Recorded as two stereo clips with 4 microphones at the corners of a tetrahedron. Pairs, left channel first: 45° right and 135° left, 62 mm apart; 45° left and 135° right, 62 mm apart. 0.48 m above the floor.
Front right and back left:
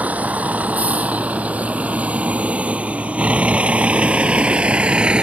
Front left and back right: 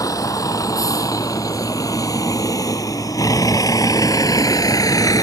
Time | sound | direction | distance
0.0 | a vehicle | 70° left | ?